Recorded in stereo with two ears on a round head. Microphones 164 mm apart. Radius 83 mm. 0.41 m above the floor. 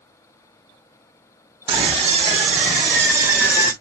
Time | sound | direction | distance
1.7 | a scream | 15° right (ahead or behind) | 2.5 m